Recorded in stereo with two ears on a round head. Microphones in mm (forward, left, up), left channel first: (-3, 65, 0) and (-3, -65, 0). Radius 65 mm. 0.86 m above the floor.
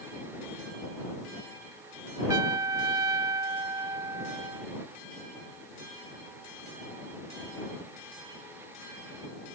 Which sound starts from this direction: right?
A trumpet, at 2.3 s.